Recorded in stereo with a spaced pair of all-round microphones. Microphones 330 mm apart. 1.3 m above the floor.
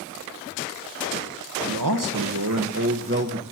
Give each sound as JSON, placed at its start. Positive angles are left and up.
{"t": 1.7, "sound": "a man speaking", "side_deg": -80, "distance_m": 1.4}